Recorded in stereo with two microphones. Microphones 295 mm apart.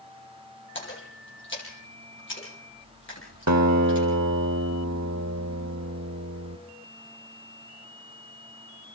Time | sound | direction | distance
0.8 | a splash | 40° left (ahead or behind) | 8.5 m
3.5 | a guitar | 65° right (ahead or behind) | 1.1 m